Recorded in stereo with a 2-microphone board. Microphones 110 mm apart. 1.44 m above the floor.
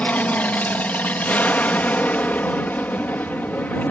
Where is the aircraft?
15° left (ahead or behind).